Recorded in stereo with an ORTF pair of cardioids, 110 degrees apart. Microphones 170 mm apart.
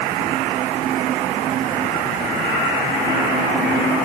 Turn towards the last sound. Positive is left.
No sound to turn to.